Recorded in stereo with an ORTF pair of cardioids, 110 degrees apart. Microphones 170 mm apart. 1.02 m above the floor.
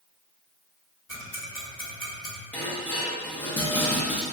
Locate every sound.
1.1 s ticking: 20° left, 1.3 m
2.5 s dishes clattering: 10° left, 0.8 m